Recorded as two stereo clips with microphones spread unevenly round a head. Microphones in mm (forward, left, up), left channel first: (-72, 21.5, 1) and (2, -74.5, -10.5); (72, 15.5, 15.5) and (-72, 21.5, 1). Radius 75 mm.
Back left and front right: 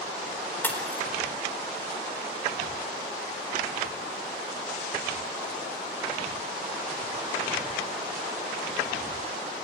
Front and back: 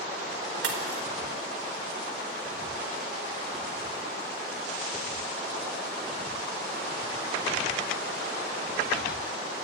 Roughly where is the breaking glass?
Behind.